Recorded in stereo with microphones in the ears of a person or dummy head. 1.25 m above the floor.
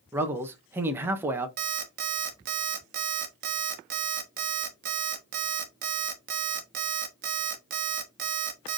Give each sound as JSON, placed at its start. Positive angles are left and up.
{"t": 0.1, "sound": "a man speaking", "side_deg": -10, "distance_m": 0.8}
{"t": 1.6, "sound": "an alarm clock", "side_deg": -50, "distance_m": 1.1}